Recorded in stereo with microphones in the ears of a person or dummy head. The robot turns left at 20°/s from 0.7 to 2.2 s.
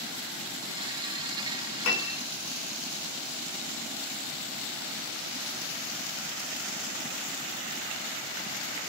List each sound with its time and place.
1.9 s a piano: 60° left (ahead or behind), 4.5 m; by 2.2 s 65° left (ahead or behind), 4.5 m